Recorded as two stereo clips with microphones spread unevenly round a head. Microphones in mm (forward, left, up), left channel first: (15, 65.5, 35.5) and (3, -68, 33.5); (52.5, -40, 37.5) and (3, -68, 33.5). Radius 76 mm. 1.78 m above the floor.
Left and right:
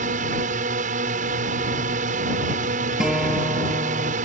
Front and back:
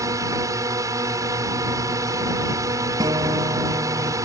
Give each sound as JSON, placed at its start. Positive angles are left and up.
{"t": 0.0, "sound": "a drone", "azimuth_deg": -130}
{"t": 3.0, "sound": "a guitar", "azimuth_deg": 180}